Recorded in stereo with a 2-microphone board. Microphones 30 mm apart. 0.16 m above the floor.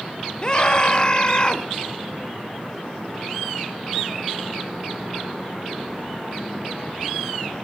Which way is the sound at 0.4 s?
30° left (ahead or behind).